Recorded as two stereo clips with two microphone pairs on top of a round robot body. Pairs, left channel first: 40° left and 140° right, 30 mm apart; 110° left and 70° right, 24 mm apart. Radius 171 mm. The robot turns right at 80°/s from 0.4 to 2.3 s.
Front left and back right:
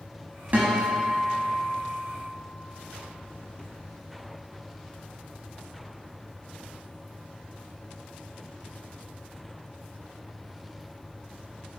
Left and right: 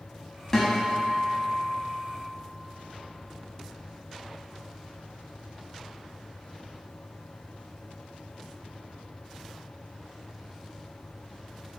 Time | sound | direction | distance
0.5 | a guitar | 175° right | 0.5 m